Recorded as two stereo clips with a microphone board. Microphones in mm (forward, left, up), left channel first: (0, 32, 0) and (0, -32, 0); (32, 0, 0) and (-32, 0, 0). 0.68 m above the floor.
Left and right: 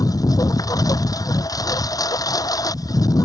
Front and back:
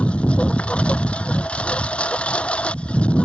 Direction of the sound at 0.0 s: 75° left.